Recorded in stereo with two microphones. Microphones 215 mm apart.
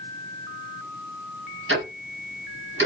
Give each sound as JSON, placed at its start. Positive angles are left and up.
{"t": 1.7, "sound": "ticking", "side_deg": -80, "distance_m": 1.5}